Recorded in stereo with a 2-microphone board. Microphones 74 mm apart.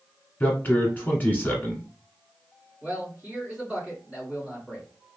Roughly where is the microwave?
I don't hear a microwave.